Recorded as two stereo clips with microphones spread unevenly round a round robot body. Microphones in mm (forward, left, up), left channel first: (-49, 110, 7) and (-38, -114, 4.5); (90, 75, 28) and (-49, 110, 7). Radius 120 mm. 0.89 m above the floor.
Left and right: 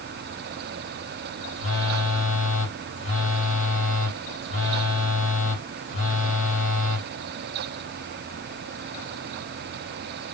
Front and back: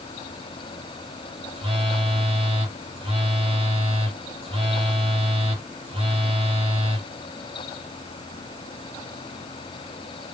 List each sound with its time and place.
1.6 s a phone buzzing: 125° left, 2.5 m